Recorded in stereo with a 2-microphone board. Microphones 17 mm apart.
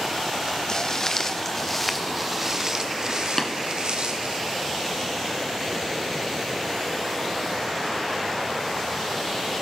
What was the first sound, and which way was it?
Footsteps, 40° left (ahead or behind).